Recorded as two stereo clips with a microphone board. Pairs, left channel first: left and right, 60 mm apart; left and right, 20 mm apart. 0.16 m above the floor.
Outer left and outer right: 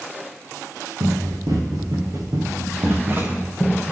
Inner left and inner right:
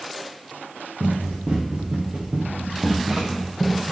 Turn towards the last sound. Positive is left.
turn(degrees=-15)  # may be behind; listen again after turning